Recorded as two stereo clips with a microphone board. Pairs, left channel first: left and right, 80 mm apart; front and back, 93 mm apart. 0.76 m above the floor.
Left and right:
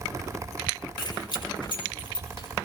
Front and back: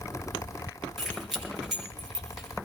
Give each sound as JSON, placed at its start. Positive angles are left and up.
{"t": 1.0, "sound": "keys jangling", "azimuth_deg": 95, "distance_m": 7.5}